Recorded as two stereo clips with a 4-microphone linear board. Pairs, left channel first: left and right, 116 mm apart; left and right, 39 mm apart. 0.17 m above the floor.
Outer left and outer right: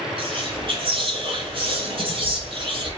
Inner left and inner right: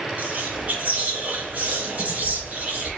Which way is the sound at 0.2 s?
50° right (ahead or behind).